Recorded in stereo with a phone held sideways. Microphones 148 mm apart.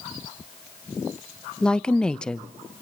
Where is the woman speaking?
5° left (ahead or behind), 0.8 m.